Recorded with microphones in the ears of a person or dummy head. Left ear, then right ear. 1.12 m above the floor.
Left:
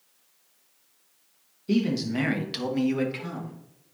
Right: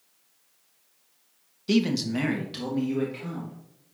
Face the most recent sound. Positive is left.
turn(degrees=50)  # may be behind; listen again after turning